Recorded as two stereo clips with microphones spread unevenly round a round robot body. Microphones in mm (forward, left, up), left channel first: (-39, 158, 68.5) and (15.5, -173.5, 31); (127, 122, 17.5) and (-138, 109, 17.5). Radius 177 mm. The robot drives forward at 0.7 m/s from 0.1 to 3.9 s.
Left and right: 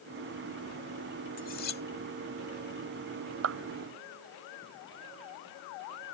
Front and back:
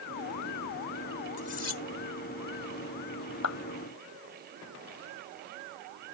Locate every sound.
1.4 s cutlery clinking: 30° left; by 1.8 s 35° left
3.4 s a clap: 35° right